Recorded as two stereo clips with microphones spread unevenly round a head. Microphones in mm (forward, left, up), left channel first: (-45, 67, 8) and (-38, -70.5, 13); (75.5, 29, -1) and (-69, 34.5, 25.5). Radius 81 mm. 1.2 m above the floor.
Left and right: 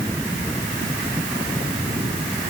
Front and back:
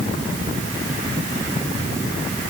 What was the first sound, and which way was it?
Only background noise.